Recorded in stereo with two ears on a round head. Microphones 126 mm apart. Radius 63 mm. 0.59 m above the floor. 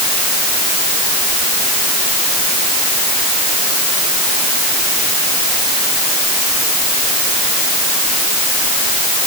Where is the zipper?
I don't hear a zipper.